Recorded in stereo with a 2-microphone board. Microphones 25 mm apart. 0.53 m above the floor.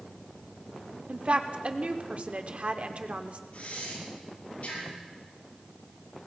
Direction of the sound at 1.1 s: 50° right (ahead or behind).